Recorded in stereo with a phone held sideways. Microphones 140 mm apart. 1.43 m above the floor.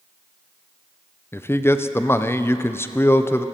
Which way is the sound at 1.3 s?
15° left (ahead or behind).